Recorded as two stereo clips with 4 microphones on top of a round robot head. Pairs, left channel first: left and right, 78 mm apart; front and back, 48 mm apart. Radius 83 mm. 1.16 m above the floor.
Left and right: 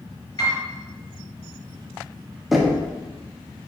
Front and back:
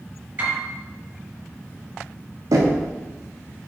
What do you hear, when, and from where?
0.4 s a piano: 130° left, 4 m
2.5 s knocking: straight behind, 1.6 m